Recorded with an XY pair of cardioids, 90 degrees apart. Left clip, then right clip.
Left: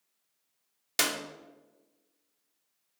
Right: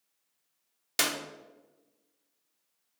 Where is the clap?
5° left, 0.7 m.